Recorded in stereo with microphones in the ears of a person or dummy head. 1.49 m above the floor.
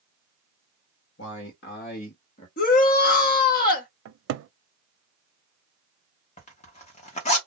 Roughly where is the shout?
Left.